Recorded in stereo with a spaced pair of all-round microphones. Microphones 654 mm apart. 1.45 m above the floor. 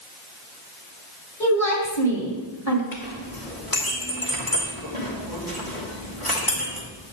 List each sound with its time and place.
1.4 s a woman speaking: 25° left (ahead or behind), 3 m
2.9 s a clink: 30° left (ahead or behind), 3 m